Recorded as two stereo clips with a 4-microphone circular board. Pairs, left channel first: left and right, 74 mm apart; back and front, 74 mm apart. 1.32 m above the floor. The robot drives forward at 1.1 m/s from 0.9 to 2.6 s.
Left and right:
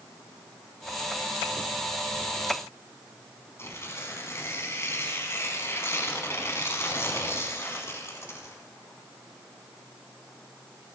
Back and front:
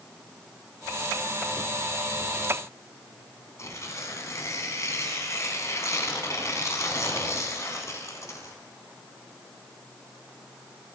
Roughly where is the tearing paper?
Behind left.